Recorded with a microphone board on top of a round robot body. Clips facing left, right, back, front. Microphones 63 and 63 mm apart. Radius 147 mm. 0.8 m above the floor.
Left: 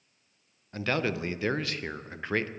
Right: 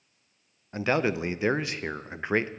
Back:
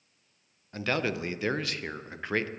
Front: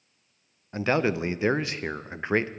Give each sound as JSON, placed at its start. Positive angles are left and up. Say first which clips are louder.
{"t": 0.7, "sound": "a man speaking", "louder": "right 4 dB, front 5 dB", "azimuth_deg": -40, "distance_m": 0.7}